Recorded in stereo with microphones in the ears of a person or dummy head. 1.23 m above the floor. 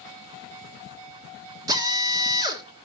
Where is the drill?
25° right (ahead or behind), 1.4 m.